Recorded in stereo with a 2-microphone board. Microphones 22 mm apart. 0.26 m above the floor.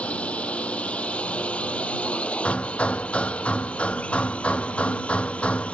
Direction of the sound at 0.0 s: 80° left.